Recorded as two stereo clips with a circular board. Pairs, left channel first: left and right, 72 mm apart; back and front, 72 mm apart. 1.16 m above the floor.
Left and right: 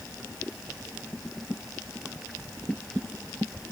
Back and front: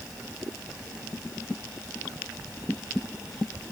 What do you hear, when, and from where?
Only background noise.